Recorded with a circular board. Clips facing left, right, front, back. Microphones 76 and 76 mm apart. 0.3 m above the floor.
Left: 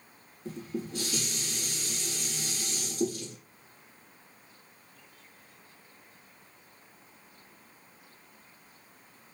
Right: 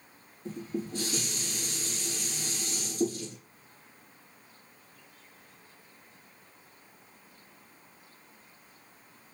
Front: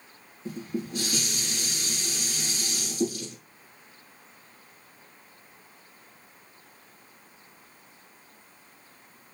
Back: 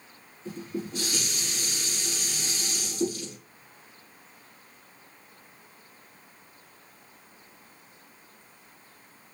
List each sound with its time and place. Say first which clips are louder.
0.5 s dishes clattering: right 1 dB, front 1 dB; 35° right, 6 m